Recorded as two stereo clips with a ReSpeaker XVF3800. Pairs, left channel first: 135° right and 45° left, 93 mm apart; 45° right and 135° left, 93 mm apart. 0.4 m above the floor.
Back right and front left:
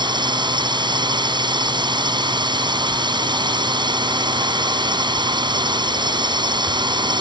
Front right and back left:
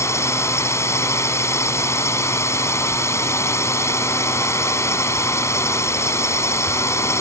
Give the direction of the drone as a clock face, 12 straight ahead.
12 o'clock.